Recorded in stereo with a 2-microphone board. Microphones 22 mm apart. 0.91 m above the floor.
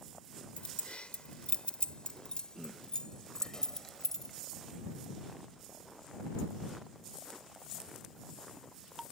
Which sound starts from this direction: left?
Keys jangling, at 0.6 s.